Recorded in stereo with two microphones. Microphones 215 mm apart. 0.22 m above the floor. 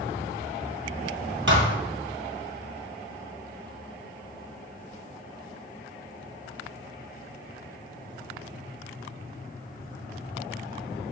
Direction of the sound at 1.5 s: 65° right (ahead or behind).